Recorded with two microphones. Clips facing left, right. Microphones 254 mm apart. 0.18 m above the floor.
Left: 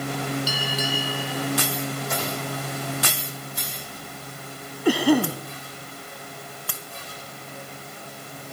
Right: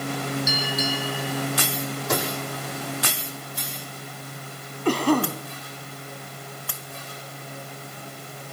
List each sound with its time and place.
0.5 s a bell: 35° left (ahead or behind), 6.5 m
2.1 s a microwave: 80° right, 8.5 m
4.8 s a cough: 10° left (ahead or behind), 1.4 m